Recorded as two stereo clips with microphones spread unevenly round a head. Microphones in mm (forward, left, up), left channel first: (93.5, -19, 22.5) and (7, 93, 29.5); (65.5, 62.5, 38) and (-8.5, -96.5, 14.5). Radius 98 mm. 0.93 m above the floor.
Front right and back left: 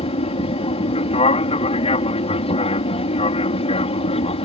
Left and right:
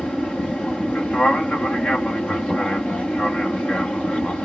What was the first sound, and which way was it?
An aircraft, 20° right.